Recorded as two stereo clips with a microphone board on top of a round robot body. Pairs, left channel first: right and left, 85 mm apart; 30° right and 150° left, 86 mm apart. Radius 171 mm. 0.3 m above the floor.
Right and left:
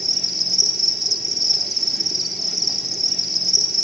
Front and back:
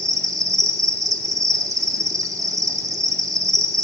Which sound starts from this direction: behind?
An insect, at 0.0 s.